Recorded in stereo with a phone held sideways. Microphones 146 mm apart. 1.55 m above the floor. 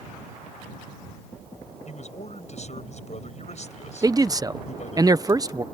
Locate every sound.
1.9 s a man speaking: 50° left (ahead or behind)
4.0 s a man speaking: 25° right (ahead or behind)